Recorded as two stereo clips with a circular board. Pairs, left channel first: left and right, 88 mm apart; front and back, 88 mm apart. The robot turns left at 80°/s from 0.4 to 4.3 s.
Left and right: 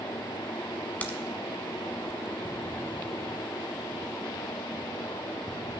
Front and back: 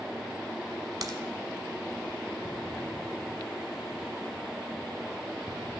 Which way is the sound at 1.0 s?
155° left.